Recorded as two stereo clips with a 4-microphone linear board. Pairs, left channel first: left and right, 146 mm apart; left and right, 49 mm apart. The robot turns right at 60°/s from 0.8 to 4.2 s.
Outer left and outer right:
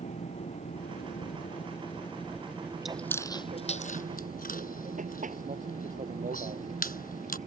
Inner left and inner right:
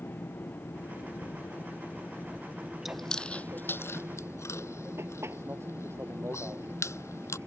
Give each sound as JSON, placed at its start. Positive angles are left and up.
{"t": 0.0, "sound": "an aircraft", "azimuth_deg": 80}
{"t": 2.9, "sound": "chewing", "side_deg": 0}